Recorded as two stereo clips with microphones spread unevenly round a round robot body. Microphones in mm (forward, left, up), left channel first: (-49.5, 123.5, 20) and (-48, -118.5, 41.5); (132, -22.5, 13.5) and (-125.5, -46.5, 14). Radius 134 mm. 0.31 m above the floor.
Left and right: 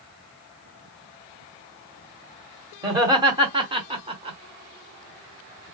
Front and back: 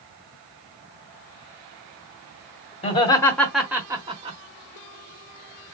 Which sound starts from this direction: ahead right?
Laughter, at 2.8 s.